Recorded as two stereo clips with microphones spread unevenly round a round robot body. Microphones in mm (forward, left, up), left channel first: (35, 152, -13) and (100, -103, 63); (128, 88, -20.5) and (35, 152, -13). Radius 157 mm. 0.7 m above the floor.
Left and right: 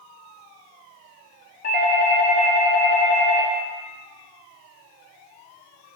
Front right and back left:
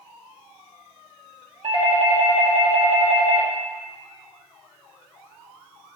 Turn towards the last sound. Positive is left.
turn(degrees=130)